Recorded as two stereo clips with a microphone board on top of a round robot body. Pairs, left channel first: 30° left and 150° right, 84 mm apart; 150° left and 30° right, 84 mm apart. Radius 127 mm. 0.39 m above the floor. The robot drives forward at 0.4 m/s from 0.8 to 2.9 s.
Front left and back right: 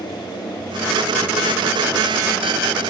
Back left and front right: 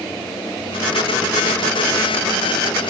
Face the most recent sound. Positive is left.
No sound to turn to.